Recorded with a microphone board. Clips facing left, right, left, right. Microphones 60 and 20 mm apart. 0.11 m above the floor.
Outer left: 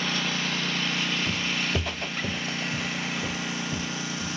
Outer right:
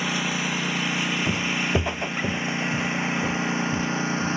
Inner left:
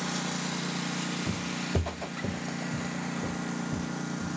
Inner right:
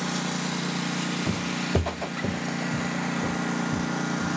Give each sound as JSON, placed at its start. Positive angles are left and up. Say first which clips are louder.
{"t": 0.0, "sound": "a lawn mower", "louder": "outer right 2 dB, inner right 4 dB", "side_deg": -10}
{"t": 1.3, "sound": "footsteps", "louder": "outer right 4 dB, inner right 5 dB", "side_deg": -30}